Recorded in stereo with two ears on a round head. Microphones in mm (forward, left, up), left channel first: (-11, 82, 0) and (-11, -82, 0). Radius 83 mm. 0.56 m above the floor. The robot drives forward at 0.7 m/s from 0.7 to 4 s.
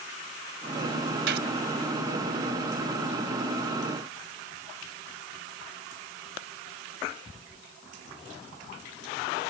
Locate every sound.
1.3 s a gunshot: 65° right (ahead or behind)